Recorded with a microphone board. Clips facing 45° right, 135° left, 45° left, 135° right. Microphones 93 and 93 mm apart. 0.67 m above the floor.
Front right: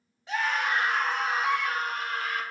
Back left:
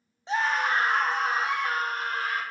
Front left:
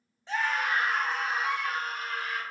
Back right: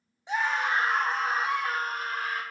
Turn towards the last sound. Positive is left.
turn(degrees=-175)